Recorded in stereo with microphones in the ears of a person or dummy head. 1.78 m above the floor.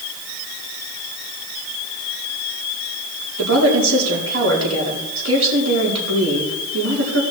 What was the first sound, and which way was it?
A woman speaking, 75° right (ahead or behind).